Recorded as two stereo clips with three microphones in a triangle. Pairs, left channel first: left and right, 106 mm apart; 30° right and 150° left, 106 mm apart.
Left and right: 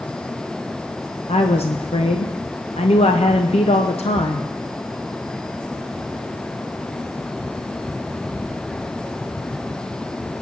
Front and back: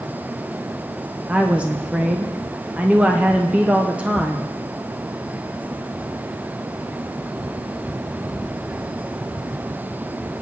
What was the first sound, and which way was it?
A woman speaking, 75° left.